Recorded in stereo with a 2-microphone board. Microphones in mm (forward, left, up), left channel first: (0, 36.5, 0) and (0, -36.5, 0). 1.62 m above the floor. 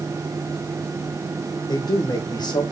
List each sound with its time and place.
1.7 s a man speaking: 65° left (ahead or behind), 1.1 m